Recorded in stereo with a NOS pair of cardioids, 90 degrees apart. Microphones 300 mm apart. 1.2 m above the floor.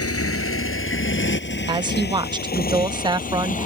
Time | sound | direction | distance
0.0 | a motorcycle | 50° left | ?
1.7 | a woman speaking | 15° right | ?